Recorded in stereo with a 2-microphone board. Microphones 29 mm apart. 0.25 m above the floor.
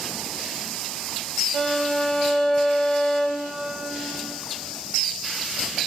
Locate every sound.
1.5 s a violin: 10° left (ahead or behind), 1.2 m